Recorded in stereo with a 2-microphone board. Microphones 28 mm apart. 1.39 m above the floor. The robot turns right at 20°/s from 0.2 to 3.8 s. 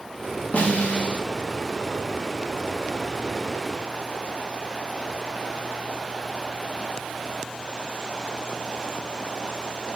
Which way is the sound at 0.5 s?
45° left (ahead or behind).